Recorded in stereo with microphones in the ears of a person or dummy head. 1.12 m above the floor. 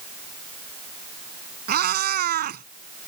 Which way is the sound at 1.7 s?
50° right (ahead or behind).